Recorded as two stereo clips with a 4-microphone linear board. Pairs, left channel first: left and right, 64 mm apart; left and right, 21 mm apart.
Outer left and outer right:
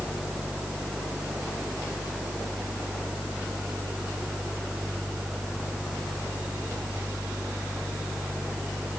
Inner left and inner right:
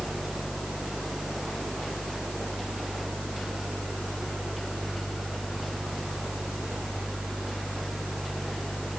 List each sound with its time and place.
Only background noise.